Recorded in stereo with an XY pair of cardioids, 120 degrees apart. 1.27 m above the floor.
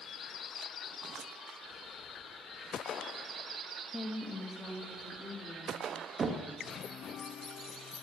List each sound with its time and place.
3.9 s a woman speaking: 15° left, 1.3 m; by 5.9 s 25° right, 3.5 m
6.2 s knocking: 35° right, 1.3 m